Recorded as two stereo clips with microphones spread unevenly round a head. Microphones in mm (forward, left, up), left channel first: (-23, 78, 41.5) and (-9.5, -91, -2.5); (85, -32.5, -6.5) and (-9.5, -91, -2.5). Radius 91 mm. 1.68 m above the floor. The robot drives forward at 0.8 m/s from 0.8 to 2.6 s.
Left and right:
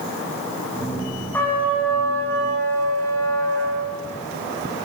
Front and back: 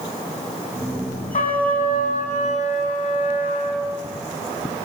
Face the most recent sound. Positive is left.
turn(degrees=20)